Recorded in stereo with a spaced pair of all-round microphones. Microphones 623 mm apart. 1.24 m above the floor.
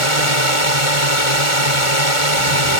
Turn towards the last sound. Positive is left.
turn(degrees=55)  # may be behind; listen again after turning